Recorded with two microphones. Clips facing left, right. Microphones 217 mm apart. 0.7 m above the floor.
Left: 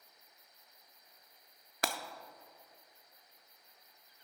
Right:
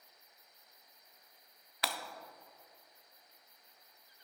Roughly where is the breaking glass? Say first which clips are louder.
Left 3 dB; left.